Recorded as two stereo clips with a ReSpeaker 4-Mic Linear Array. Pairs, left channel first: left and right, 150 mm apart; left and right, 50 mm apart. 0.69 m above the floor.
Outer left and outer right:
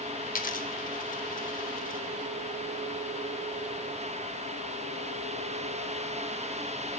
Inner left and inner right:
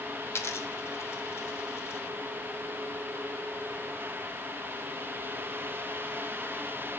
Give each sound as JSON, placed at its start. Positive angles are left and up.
{"t": 0.3, "sound": "a dropped coin", "side_deg": 65, "distance_m": 0.8}